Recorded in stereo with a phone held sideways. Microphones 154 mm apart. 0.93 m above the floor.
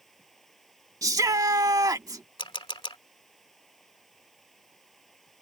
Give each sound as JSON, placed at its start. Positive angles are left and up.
{"t": 0.0, "sound": "running water", "side_deg": 0}
{"t": 1.0, "sound": "a shout", "side_deg": -20}
{"t": 2.4, "sound": "a camera shutter", "side_deg": 35}